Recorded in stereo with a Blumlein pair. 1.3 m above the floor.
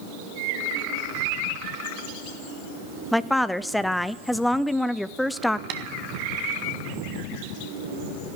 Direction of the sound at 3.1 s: 5° left.